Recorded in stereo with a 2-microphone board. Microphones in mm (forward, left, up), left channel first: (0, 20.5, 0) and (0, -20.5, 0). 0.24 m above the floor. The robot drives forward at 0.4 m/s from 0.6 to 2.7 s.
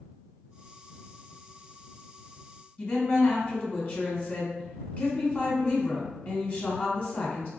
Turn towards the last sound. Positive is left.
turn(degrees=40)  # may be behind; listen again after turning